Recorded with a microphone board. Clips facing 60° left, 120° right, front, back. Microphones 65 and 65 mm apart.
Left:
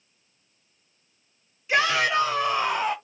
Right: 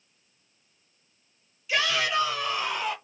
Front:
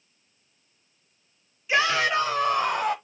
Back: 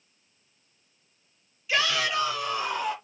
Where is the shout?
45° left, 1.0 m; by 3.0 s straight ahead, 1.5 m.